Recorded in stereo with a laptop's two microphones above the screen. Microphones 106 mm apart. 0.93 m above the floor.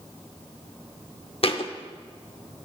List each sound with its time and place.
1.4 s a thud: 60° left (ahead or behind), 0.8 m